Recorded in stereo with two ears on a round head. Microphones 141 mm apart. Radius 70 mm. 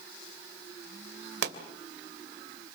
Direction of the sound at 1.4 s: 70° right (ahead or behind).